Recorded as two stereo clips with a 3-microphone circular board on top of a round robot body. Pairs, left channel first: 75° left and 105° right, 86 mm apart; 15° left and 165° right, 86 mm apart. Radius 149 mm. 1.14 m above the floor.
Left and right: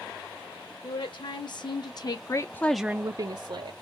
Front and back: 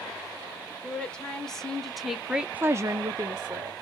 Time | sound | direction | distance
0.8 | a woman speaking | 95° left | 2.5 m